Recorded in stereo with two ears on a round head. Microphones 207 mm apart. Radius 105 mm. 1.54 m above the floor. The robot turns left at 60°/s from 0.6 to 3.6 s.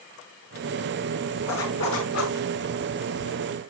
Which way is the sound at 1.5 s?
110° left.